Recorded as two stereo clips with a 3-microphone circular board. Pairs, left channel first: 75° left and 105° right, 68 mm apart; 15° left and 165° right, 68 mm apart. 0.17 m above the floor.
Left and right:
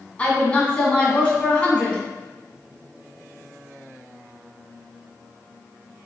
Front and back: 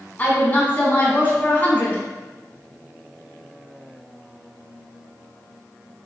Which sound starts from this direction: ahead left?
A woman speaking, at 0.2 s.